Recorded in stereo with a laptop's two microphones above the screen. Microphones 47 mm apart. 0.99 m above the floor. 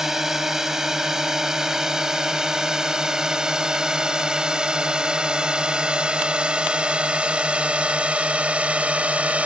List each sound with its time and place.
0.0 s a drone: 10° right (ahead or behind); by 9.5 s 30° right (ahead or behind)